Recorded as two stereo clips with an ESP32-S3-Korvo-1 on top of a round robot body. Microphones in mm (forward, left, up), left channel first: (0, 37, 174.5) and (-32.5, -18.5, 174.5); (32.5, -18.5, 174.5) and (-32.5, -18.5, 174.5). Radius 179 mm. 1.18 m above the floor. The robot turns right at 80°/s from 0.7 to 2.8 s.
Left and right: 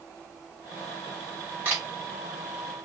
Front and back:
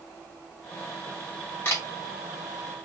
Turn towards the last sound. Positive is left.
turn(degrees=35)